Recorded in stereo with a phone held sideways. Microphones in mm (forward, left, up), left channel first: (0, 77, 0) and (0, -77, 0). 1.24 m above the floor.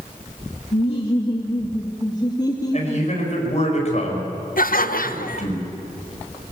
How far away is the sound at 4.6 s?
About 1.0 m.